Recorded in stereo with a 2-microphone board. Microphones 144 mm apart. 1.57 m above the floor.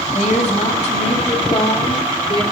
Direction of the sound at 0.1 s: 55° left (ahead or behind).